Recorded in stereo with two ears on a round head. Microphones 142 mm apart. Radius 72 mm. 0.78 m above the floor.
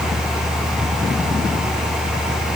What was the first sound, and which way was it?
Only background noise.